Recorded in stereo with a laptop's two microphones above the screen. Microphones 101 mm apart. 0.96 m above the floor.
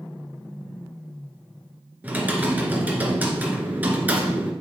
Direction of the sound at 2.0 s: 15° right (ahead or behind).